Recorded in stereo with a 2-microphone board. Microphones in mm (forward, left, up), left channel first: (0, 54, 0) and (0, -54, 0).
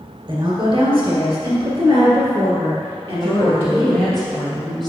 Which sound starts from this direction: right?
A woman speaking, at 0.3 s.